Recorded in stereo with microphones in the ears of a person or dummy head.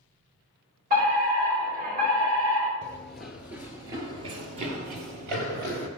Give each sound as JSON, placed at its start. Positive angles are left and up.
{"t": 0.9, "sound": "a fire alarm", "side_deg": -50, "distance_m": 6.0}
{"t": 2.8, "sound": "running footsteps", "side_deg": 10, "distance_m": 1.6}